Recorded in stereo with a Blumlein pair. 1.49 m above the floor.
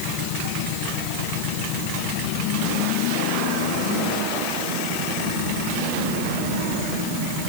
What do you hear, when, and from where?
Only background noise.